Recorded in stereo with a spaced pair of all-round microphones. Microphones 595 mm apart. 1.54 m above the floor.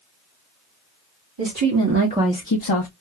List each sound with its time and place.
1.4 s a woman speaking: 45° right (ahead or behind), 1.3 m; by 2.9 s 65° left (ahead or behind), 0.8 m